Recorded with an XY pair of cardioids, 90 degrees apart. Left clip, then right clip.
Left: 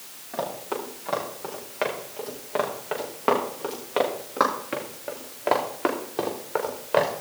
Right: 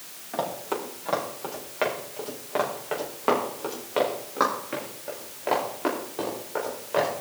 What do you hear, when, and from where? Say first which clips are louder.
0.3 s running footsteps: right 1 dB; 10° right, 4.5 m; by 7.1 s 55° left, 4 m